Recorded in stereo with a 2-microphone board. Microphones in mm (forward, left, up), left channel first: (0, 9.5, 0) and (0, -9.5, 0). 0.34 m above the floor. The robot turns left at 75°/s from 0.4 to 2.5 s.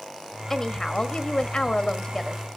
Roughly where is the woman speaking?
Behind.